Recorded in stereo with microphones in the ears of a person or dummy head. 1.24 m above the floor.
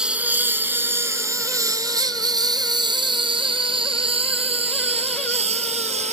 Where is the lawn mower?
5° right (ahead or behind); by 6.1 s 40° right (ahead or behind).